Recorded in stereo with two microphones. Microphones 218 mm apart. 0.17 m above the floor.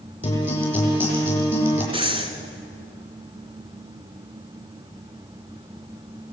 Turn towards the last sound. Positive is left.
turn(degrees=-25)  # may be behind; listen again after turning